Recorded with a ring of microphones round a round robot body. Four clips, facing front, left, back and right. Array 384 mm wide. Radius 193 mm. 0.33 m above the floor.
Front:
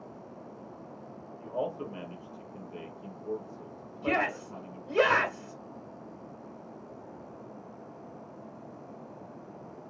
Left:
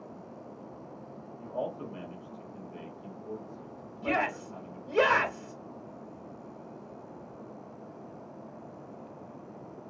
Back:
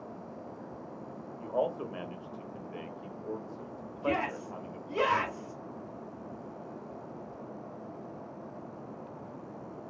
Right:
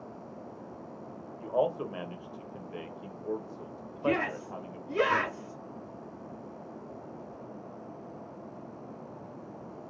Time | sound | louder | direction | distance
1.4 | a man speaking | right 7 dB, back 2 dB | 110° right | 1.1 m
4.0 | a shout | right 1 dB, front 2 dB | 50° left | 2 m